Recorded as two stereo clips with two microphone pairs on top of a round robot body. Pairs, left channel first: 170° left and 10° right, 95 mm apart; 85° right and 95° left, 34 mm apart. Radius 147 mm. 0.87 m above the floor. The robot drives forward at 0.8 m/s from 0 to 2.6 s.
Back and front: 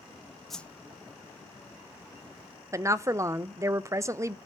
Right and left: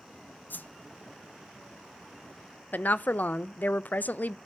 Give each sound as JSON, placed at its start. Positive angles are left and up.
{"t": 0.5, "sound": "a whoosh", "azimuth_deg": -85, "distance_m": 0.5}
{"t": 2.7, "sound": "a woman speaking", "azimuth_deg": -50, "distance_m": 0.5}